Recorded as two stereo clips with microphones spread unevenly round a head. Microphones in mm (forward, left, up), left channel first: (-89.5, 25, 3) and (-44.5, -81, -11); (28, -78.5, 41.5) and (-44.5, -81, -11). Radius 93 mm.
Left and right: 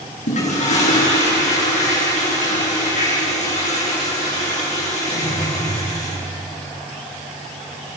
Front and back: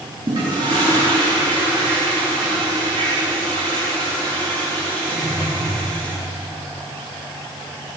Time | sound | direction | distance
0.3 | a toilet flushing | 120° left | 10 m